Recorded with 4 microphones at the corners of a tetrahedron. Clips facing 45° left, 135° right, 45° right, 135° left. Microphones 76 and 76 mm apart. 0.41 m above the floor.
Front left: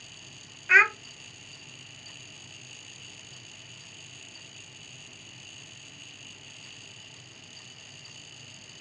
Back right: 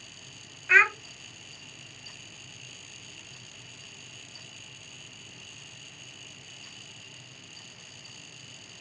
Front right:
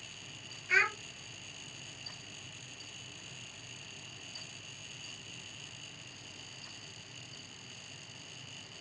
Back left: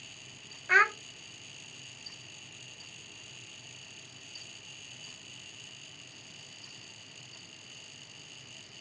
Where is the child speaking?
130° left, 0.6 m.